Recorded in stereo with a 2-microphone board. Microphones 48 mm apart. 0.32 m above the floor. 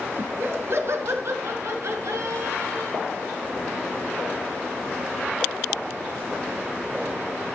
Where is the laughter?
50° right (ahead or behind), 3 m; by 3.0 s 75° right (ahead or behind), 4.5 m.